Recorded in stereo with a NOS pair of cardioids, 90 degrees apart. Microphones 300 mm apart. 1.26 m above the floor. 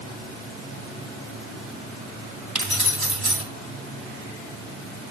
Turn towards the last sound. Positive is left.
turn(degrees=-5)